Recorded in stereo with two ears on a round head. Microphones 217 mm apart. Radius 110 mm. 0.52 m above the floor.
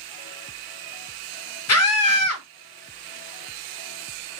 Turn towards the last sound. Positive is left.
turn(degrees=70)  # may be behind; listen again after turning